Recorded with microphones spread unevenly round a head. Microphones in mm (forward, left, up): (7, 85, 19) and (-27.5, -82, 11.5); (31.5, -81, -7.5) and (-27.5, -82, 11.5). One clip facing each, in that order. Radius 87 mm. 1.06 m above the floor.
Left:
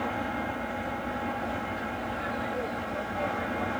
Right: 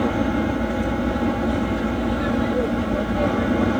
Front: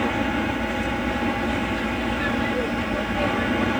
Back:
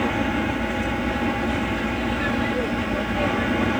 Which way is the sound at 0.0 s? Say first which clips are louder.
Right 11 dB, even; 90° right.